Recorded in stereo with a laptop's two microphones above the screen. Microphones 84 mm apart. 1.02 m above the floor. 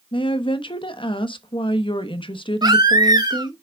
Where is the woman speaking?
80° left, 0.9 m.